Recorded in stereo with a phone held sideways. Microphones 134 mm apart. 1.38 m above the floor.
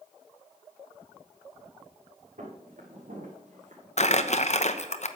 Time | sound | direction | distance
2.4 | footsteps | 70° right (ahead or behind) | 5.5 m
4.0 | crumpling | 60° left (ahead or behind) | 0.9 m